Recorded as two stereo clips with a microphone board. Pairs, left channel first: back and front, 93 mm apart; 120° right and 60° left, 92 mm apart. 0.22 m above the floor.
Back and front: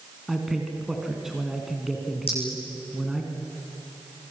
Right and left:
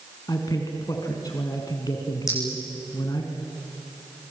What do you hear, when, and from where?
0.3 s a man speaking: 85° right, 2.5 m
2.3 s a clink: 175° right, 9.5 m